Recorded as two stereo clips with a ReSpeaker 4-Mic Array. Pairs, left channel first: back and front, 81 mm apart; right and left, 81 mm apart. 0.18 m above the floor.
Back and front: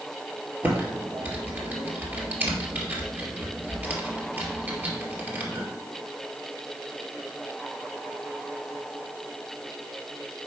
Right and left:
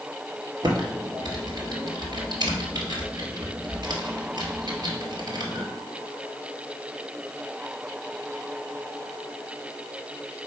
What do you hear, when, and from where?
0.6 s typing on a keyboard: 65° left, 2 m